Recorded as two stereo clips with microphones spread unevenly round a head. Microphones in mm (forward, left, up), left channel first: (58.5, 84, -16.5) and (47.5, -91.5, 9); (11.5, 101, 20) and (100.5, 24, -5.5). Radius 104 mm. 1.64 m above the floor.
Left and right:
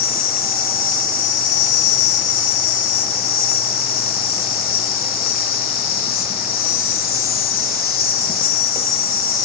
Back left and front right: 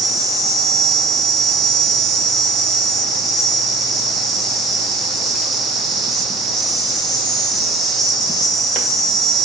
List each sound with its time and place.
0.0 s an insect: 50° left, 2 m